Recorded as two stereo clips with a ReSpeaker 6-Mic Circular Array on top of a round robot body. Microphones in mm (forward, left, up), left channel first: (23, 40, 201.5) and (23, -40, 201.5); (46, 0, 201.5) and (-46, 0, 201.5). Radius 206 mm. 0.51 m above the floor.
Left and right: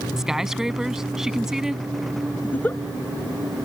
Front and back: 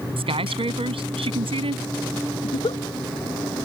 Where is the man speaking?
175° right.